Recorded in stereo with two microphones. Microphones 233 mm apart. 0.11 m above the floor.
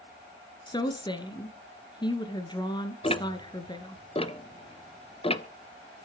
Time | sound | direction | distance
0.7 | a woman speaking | 20° left (ahead or behind) | 1.4 m
3.0 | ticking | 25° left (ahead or behind) | 0.7 m